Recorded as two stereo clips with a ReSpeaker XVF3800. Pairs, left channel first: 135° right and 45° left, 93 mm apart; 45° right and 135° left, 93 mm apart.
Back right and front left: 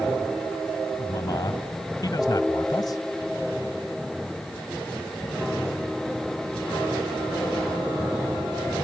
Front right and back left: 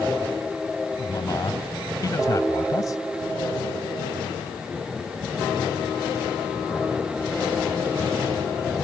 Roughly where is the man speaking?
Right.